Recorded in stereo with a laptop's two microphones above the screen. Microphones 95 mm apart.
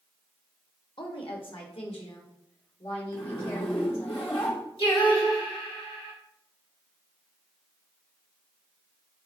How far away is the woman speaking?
About 0.9 m.